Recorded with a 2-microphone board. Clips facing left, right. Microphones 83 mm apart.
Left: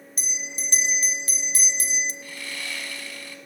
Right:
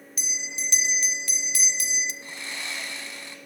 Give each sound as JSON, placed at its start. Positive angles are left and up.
{"t": 0.2, "sound": "a bell", "side_deg": 40, "distance_m": 0.6}
{"t": 2.2, "sound": "sawing", "side_deg": -25, "distance_m": 1.0}